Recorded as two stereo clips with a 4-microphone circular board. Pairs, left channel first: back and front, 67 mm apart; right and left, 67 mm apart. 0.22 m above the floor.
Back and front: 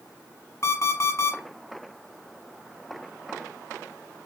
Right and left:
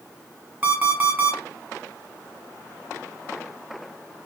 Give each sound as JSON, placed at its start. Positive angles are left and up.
{"t": 0.6, "sound": "an alarm clock", "azimuth_deg": 140, "distance_m": 1.3}